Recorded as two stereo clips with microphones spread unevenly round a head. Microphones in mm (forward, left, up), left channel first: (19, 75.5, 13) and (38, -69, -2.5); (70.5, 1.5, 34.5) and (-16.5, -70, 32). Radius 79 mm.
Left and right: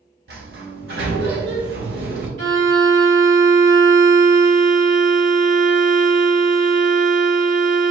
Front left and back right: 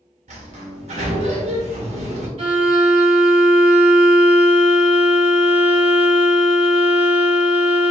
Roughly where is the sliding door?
Behind right.